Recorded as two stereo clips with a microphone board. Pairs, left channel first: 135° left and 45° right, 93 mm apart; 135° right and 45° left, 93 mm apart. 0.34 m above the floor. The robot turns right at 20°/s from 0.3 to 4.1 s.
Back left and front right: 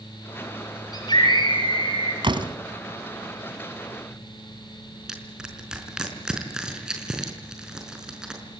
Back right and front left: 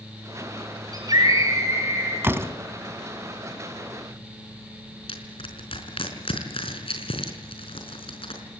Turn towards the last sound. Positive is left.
turn(degrees=-125)